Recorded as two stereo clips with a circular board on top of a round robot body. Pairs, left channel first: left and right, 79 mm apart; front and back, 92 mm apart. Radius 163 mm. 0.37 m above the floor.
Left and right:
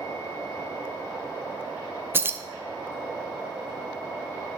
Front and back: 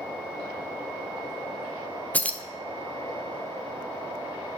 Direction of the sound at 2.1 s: 60° right.